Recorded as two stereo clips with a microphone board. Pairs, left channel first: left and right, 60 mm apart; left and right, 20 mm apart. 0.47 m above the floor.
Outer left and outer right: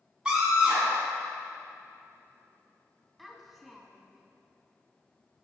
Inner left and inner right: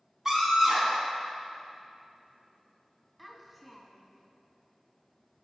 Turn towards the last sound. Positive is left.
turn(degrees=5)  # may be behind; listen again after turning